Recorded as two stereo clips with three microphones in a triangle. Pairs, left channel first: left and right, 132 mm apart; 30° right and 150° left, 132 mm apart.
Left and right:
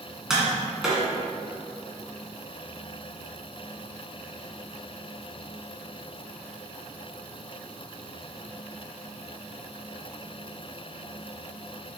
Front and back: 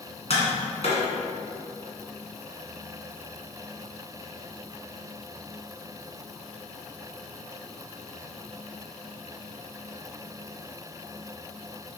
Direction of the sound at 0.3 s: 5° right.